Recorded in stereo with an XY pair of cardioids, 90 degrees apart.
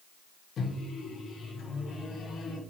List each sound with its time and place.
0.6 s a microwave: 65° left, 0.5 m